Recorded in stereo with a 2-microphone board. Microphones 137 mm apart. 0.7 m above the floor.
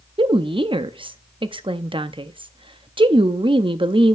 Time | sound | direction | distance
0.2 | a woman speaking | 40° right (ahead or behind) | 0.6 m